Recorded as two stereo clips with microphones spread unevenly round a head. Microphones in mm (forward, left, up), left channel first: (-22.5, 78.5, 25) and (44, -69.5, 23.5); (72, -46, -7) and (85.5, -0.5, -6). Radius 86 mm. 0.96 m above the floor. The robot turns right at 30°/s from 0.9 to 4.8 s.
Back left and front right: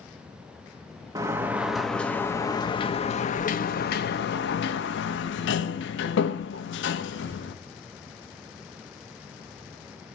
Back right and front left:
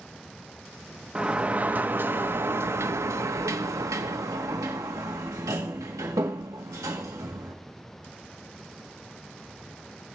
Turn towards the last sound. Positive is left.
turn(degrees=115)